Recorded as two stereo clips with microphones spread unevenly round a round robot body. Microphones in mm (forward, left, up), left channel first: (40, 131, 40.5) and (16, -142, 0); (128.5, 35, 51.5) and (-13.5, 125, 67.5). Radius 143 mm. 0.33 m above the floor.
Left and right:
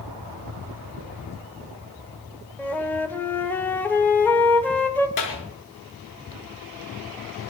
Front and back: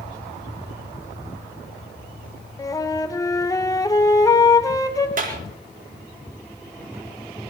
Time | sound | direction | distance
2.6 | a flute | 10° right | 1.3 m
5.2 | a clap | 110° left | 4.5 m